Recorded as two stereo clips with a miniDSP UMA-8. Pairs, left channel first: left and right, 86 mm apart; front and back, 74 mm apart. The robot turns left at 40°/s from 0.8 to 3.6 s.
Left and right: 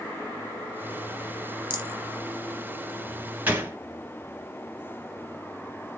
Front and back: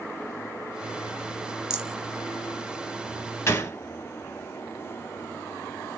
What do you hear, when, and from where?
1.7 s a rattle: 105° right, 1.1 m; by 2.0 s 115° right, 1.1 m
3.5 s a gunshot: 30° right, 1.1 m; by 3.8 s 35° right, 1.1 m